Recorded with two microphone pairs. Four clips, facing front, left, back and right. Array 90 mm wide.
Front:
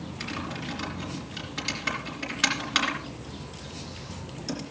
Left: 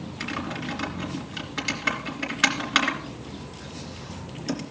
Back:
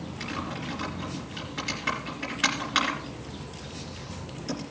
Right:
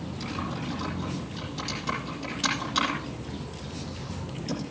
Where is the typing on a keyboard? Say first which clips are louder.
Left 2 dB, back 1 dB; 95° left, 3 m.